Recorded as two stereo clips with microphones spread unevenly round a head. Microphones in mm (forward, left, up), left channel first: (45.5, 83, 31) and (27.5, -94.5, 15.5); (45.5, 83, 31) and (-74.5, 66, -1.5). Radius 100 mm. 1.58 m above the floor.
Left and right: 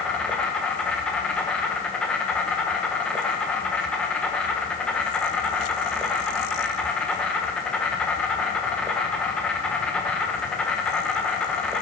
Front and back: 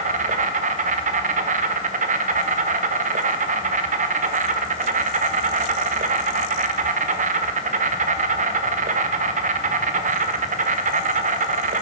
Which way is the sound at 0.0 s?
165° left.